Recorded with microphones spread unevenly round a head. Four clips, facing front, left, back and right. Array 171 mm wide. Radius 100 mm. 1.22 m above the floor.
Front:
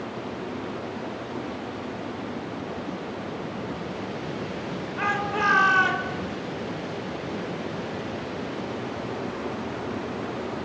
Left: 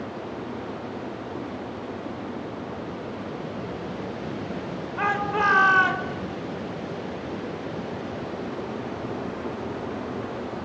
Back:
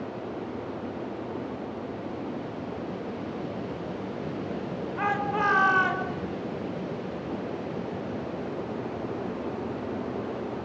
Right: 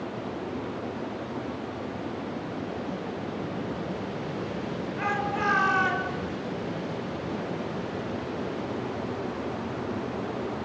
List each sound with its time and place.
5.0 s a shout: 65° left, 6 m